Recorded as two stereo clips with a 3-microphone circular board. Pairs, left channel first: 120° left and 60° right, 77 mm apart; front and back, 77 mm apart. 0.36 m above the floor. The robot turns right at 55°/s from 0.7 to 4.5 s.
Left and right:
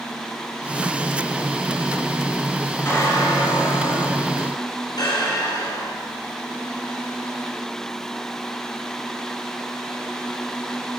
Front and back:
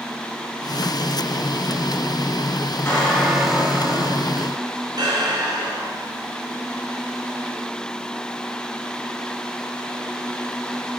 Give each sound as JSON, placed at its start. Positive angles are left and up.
{"t": 2.9, "sound": "a squeak", "azimuth_deg": 60, "distance_m": 3.5}